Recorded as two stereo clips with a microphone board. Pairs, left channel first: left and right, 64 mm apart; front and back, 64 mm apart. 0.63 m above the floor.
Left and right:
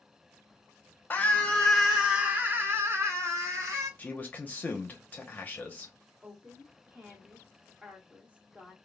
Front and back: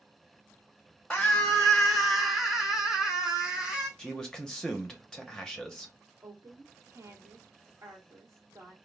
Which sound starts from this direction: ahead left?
A scream, at 1.1 s.